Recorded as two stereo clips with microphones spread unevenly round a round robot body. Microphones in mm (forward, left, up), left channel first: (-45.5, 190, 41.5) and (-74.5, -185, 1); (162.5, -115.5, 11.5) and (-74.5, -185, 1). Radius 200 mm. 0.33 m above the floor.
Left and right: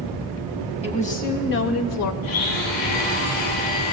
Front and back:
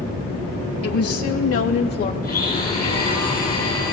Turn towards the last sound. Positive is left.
turn(degrees=90)